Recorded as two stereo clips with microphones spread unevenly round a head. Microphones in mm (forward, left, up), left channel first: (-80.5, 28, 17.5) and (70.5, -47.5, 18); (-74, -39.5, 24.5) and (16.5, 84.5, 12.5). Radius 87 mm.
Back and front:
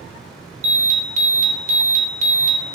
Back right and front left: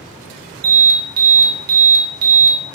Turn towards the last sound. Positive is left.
turn(degrees=20)